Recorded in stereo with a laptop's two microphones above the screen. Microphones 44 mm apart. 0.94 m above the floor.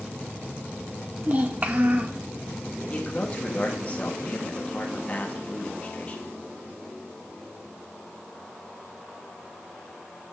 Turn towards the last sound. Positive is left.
turn(degrees=30)  # may be behind; listen again after turning